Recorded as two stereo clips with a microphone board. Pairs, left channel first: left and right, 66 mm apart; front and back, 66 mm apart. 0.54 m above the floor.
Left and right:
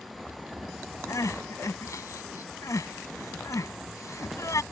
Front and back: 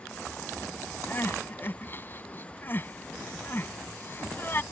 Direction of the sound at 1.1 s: 55° left.